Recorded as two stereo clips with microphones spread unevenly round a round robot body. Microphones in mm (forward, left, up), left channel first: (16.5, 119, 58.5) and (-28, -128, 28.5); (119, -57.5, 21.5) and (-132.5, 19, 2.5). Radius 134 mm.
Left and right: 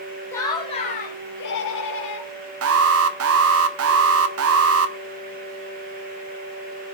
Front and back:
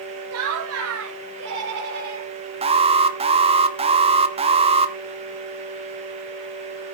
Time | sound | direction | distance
0.3 | laughter | 165° left | 1.5 m
2.6 | an alarm | 130° right | 1.2 m